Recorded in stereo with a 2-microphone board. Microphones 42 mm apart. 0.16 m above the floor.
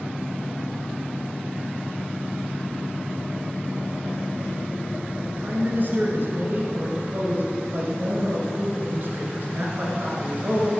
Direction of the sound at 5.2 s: 50° right (ahead or behind).